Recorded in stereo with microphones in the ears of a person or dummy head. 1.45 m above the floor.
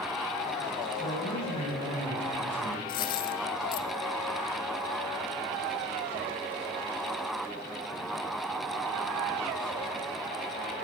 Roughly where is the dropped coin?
Left.